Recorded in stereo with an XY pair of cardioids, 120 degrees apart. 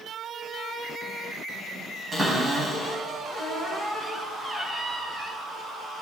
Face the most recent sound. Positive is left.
turn(degrees=-25)